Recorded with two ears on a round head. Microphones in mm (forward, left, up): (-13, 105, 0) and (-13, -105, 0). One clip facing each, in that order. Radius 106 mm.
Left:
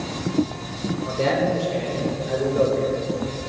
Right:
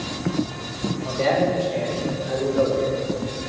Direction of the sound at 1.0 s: 15° left (ahead or behind).